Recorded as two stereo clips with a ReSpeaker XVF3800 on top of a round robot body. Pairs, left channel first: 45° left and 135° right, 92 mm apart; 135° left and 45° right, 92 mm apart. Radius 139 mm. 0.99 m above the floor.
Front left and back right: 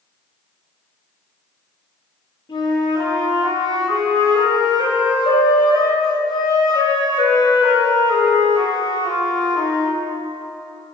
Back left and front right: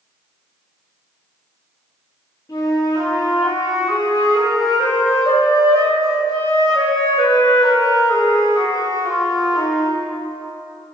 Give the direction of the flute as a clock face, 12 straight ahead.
9 o'clock.